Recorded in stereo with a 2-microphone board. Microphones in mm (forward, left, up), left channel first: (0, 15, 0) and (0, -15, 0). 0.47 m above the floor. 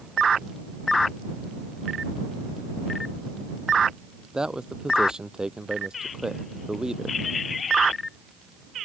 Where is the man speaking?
25° right (ahead or behind).